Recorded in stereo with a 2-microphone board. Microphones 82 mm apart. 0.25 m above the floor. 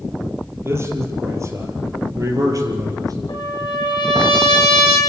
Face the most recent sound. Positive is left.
turn(degrees=70)  # may be behind; listen again after turning